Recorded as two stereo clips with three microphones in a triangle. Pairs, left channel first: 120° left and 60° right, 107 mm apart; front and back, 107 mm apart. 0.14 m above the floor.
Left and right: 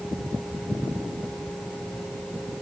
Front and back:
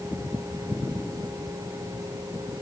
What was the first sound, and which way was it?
Only background noise.